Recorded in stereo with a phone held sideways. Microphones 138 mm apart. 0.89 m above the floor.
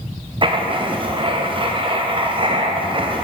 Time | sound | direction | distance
0.4 | writing | 40° right (ahead or behind) | 0.5 m